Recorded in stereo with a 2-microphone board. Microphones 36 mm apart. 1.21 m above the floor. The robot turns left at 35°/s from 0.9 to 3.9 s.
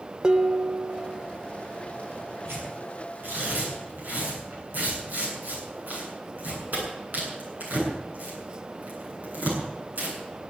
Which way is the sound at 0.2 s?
30° right (ahead or behind).